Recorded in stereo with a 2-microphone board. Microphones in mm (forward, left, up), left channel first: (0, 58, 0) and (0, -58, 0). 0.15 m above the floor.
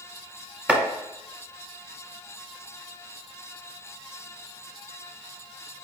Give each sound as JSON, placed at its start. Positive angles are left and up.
{"t": 0.7, "sound": "chopping", "side_deg": -10, "distance_m": 1.3}